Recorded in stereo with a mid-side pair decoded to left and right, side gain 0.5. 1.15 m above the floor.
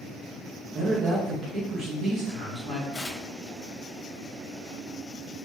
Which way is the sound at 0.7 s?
60° right.